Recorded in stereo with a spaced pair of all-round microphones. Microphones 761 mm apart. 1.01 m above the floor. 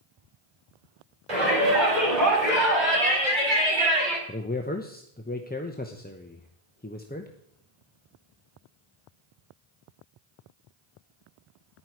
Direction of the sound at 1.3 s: 65° right (ahead or behind).